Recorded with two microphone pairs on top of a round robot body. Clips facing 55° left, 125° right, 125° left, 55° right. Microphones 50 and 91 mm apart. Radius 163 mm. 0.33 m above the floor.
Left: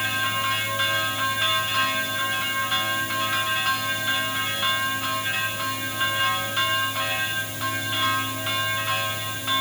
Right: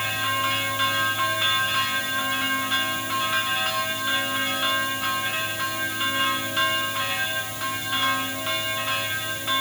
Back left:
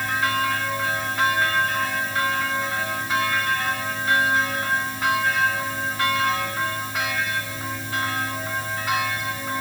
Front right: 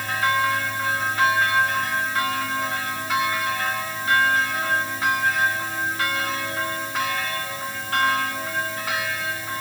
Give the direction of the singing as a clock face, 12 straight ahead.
I don't hear singing.